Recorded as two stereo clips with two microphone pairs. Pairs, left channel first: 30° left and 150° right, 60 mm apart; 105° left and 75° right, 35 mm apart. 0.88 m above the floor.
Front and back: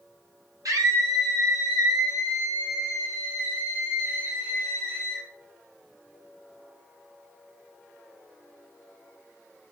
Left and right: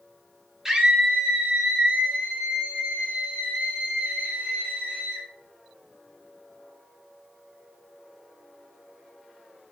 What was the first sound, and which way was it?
A scream, 150° right.